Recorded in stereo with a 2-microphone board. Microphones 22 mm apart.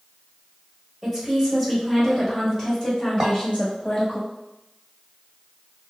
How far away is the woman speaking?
About 1.6 m.